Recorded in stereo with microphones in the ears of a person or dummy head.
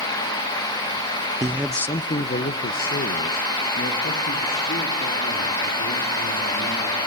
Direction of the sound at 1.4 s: 20° right (ahead or behind).